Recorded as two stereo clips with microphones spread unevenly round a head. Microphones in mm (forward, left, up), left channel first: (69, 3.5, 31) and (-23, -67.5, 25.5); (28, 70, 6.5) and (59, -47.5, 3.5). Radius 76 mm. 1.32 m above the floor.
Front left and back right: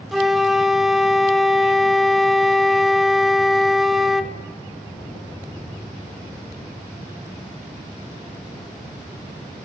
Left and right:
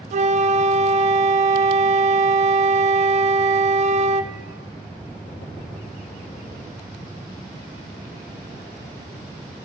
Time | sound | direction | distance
0.1 | a flute | 55° right | 0.8 m